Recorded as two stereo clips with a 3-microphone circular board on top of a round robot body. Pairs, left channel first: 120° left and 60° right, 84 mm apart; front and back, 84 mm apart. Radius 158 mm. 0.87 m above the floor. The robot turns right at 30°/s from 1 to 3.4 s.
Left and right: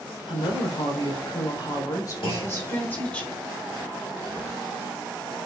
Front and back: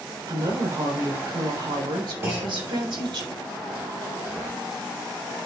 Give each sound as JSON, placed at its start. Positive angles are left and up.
{"t": 0.3, "sound": "a woman speaking", "azimuth_deg": 130, "distance_m": 3.5}
{"t": 2.2, "sound": "a clunk", "azimuth_deg": 120, "distance_m": 4.5}